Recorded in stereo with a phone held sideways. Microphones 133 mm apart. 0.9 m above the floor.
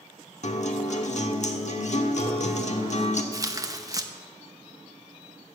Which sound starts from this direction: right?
Tearing paper, at 3.3 s.